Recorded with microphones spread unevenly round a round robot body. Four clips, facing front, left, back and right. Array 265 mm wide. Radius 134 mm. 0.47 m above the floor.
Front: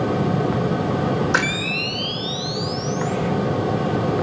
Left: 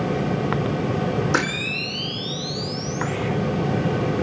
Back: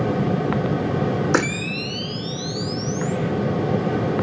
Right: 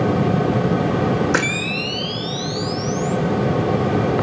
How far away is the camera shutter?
About 1.4 m.